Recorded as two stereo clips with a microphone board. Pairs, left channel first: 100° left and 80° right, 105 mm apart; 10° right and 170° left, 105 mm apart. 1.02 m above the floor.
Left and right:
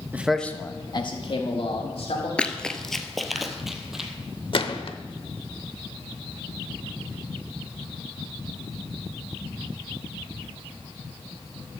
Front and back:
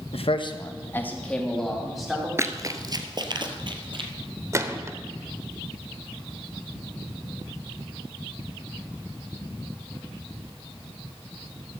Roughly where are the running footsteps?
Behind.